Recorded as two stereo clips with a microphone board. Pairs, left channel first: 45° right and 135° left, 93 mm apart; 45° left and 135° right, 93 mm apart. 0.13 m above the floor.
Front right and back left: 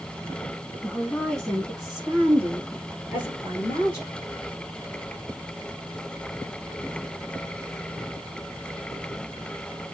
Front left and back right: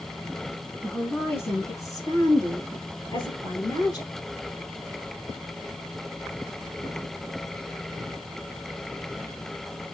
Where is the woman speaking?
15° right, 1.4 m; by 4.1 s 75° left, 3 m.